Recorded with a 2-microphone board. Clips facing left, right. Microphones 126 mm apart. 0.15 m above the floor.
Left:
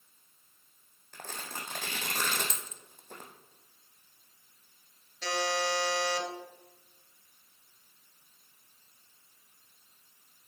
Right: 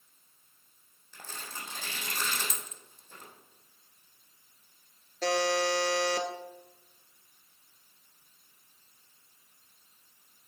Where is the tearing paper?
60° left (ahead or behind), 1.6 m.